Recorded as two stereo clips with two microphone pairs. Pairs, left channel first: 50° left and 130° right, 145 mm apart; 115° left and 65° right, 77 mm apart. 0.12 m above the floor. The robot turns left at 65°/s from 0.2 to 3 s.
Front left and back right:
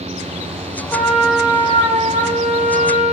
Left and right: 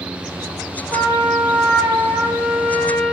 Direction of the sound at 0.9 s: 20° right.